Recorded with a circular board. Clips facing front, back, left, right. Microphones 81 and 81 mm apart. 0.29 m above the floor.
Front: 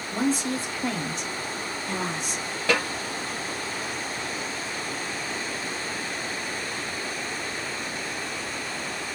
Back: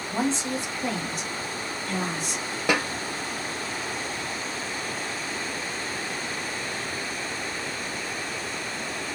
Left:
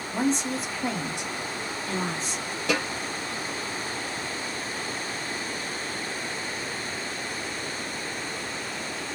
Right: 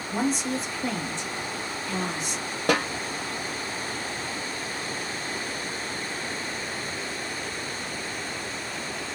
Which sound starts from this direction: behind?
A woman speaking, at 0.1 s.